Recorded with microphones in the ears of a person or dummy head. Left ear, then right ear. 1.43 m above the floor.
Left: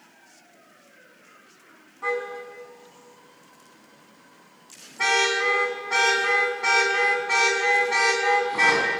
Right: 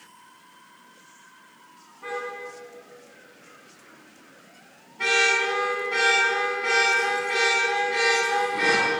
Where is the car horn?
40° left (ahead or behind), 6 m.